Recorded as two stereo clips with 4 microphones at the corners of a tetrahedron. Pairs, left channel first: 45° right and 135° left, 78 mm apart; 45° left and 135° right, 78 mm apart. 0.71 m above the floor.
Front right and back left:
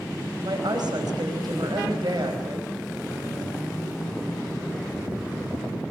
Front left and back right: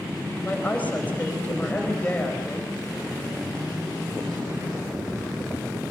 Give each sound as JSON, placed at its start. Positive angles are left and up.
{"t": 0.4, "sound": "a woman speaking", "azimuth_deg": 115, "distance_m": 4.5}